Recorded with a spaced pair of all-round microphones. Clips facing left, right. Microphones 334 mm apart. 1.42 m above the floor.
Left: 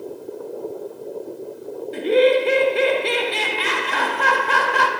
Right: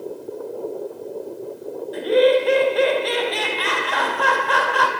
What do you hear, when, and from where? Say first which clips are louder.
1.9 s laughter: even; 35° left (ahead or behind), 0.7 m